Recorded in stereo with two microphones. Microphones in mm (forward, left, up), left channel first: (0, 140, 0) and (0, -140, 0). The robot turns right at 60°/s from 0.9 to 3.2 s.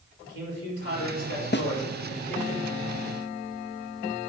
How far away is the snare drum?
About 0.5 m.